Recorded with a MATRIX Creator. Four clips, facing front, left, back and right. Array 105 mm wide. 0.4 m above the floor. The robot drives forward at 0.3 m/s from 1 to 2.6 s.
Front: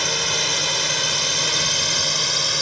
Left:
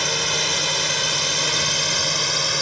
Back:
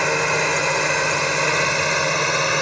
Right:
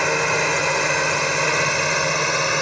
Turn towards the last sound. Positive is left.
turn(degrees=-145)